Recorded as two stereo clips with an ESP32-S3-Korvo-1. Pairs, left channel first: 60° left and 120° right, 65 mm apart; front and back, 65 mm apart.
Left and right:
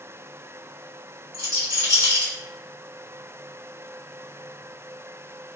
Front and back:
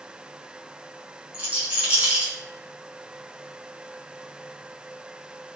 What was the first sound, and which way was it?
A rattle, 110° right.